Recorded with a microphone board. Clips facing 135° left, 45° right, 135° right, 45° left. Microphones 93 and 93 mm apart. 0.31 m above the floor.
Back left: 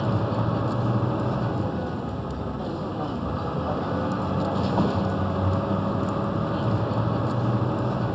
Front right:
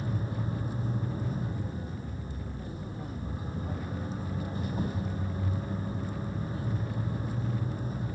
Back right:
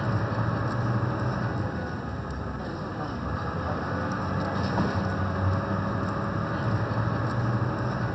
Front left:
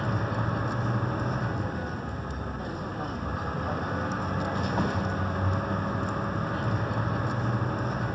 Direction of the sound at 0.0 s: 135° left.